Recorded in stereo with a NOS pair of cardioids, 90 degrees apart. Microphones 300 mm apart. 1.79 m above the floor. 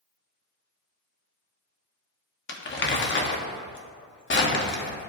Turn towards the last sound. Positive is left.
turn(degrees=35)